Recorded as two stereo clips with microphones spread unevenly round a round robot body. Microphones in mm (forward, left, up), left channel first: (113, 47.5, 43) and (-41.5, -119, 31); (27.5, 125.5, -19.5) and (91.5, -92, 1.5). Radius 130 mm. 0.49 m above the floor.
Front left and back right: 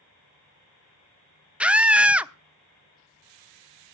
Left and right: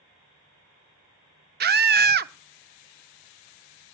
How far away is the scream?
About 1.2 m.